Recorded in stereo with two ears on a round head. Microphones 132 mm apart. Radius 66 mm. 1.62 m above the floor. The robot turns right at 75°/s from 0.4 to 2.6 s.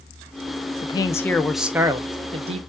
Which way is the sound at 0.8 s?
125° left.